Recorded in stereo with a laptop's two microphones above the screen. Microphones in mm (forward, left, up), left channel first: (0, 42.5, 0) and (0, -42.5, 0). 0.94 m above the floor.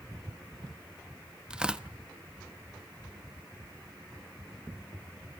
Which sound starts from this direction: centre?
Tearing paper, at 1.5 s.